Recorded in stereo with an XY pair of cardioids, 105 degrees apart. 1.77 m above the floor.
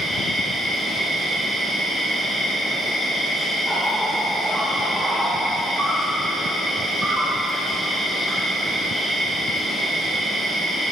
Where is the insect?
5° right, 3 m.